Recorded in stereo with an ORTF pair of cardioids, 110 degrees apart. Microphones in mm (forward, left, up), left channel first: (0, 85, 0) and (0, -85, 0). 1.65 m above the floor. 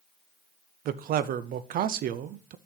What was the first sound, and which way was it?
A man speaking, 60° right.